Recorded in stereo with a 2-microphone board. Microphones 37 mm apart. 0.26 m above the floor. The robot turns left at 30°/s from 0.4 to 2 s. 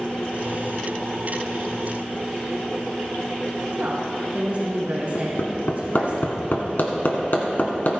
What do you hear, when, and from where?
3.8 s a woman speaking: 45° right (ahead or behind), 3 m
5.2 s hammering: 65° left (ahead or behind), 2 m